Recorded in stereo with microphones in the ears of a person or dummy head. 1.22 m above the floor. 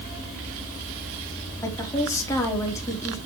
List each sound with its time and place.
1.6 s a woman speaking: 15° left (ahead or behind), 3.5 m